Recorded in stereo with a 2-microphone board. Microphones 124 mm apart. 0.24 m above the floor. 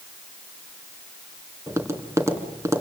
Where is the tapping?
20° right (ahead or behind), 3.5 m.